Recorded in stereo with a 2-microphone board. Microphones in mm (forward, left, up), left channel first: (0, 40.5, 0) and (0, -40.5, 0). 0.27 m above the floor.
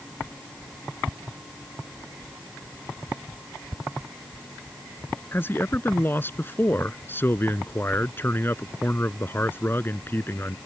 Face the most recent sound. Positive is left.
turn(degrees=25)  # may be behind; listen again after turning